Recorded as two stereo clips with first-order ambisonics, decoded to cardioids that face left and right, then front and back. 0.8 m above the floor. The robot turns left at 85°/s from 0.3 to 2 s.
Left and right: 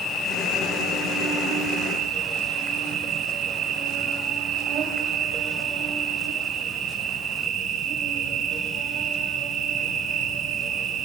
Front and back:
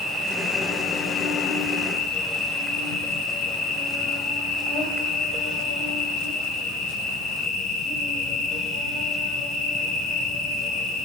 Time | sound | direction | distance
0.0 | an insect | 110° left | 4 m